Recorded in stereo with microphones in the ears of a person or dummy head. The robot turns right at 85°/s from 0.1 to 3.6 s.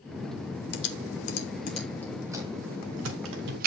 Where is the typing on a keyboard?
60° left (ahead or behind), 1.5 m; by 3.7 s 55° right (ahead or behind), 1.5 m.